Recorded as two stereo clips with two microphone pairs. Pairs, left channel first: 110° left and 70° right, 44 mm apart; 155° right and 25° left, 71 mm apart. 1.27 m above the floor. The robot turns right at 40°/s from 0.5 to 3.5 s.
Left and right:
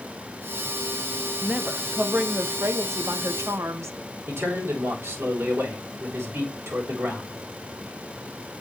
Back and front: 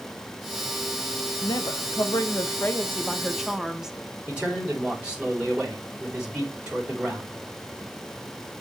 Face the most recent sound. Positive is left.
turn(degrees=-50)